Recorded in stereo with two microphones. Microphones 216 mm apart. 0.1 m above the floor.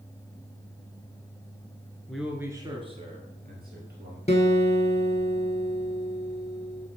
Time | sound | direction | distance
2.1 | a man speaking | centre (ahead or behind) | 1.2 m
4.3 | a guitar | 30° left (ahead or behind) | 1.4 m